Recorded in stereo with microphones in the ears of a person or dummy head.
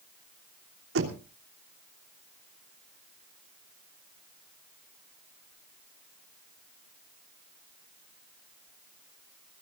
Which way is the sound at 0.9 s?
70° right (ahead or behind).